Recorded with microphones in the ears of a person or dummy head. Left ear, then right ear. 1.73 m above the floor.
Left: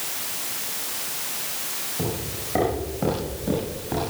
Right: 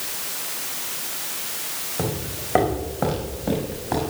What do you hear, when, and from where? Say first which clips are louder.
2.0 s footsteps: right 3 dB; 45° right (ahead or behind), 5.5 m; by 4.1 s 35° right (ahead or behind), 7 m